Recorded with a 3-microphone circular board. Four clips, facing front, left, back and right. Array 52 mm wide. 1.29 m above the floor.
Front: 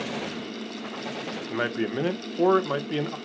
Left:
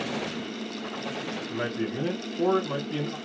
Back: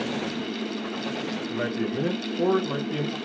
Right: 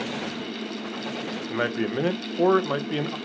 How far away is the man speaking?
About 0.6 m.